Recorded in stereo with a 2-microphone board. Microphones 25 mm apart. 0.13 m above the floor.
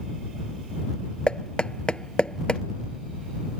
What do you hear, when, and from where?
1.3 s knocking: 40° left (ahead or behind)